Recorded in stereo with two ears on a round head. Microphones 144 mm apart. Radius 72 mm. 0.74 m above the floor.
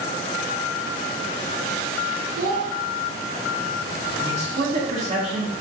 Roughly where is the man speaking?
Right.